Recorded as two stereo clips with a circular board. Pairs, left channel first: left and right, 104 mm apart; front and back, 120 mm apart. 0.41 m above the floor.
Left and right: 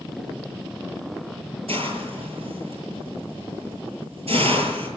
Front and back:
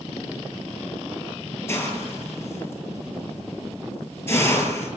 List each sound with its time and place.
1.7 s a hiss: 70° right, 9 m